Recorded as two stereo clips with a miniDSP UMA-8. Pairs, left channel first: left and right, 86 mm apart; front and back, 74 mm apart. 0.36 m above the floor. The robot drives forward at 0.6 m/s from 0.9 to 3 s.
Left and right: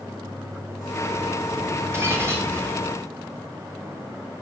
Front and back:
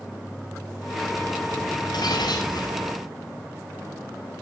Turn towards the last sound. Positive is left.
turn(degrees=-30)